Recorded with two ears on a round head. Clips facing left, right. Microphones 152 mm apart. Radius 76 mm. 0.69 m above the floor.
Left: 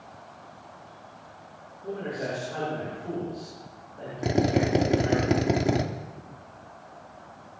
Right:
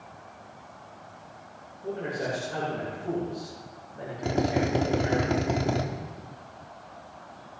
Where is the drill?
20° left (ahead or behind), 1.3 m.